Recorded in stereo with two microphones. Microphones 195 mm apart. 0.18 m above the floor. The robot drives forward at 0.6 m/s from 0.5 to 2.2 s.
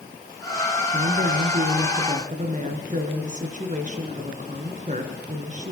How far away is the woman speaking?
About 2.5 m.